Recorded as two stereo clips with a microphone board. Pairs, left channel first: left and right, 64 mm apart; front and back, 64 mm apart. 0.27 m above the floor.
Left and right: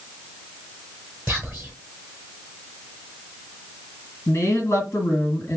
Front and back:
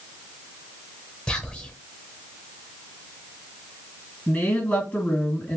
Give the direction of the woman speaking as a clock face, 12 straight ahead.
10 o'clock.